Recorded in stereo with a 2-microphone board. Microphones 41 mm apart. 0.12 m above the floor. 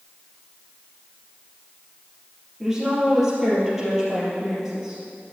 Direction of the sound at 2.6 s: 10° right (ahead or behind).